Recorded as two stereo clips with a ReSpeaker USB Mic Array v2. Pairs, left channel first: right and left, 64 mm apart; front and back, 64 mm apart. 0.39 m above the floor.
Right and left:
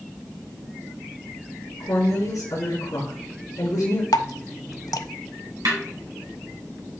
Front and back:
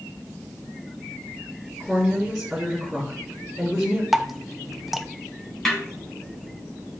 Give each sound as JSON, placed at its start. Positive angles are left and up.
{"t": 1.8, "sound": "a woman speaking", "azimuth_deg": -90, "distance_m": 3.5}
{"t": 4.1, "sound": "dripping", "azimuth_deg": -95, "distance_m": 0.5}
{"t": 5.7, "sound": "a snare drum", "azimuth_deg": 85, "distance_m": 2.5}